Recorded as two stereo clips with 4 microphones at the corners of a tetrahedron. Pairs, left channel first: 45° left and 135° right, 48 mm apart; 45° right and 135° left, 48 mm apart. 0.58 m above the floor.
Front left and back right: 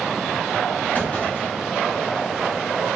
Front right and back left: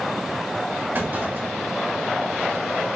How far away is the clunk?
About 3 m.